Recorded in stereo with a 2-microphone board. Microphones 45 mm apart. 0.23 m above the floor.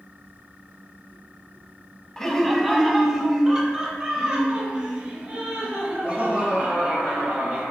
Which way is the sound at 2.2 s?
10° left (ahead or behind).